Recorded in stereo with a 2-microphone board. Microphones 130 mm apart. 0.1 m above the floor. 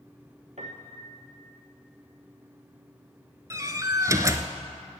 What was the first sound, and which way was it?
A piano, 60° right (ahead or behind).